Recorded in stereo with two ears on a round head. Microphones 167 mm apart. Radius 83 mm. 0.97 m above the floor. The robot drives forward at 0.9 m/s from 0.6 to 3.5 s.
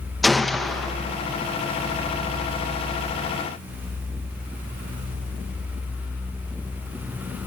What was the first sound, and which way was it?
A gunshot, centre (ahead or behind).